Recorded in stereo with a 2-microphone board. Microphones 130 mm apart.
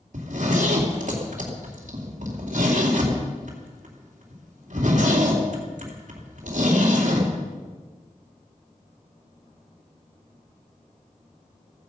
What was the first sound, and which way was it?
A zipper, 70° right (ahead or behind).